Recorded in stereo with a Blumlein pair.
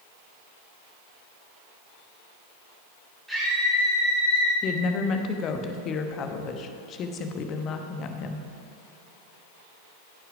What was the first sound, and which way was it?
A scream, straight ahead.